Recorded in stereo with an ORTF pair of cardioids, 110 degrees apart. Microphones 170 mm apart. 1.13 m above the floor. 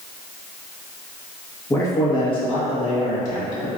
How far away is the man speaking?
About 1.1 m.